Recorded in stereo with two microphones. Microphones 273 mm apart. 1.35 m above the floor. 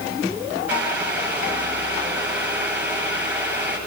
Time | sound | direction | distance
0.7 | boiling | 5° right (ahead or behind) | 10 m